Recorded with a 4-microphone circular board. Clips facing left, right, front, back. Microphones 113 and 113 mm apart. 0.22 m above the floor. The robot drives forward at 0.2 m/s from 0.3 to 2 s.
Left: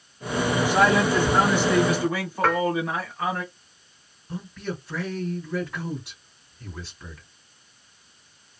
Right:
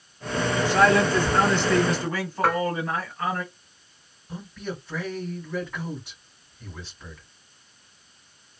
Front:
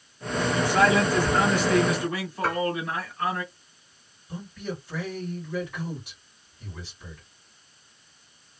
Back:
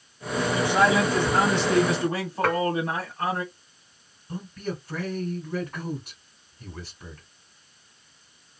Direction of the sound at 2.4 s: 170° right.